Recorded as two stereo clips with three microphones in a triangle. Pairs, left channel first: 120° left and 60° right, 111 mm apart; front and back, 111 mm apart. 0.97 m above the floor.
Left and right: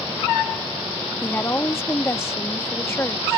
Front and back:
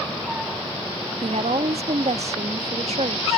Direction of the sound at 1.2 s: 175° right.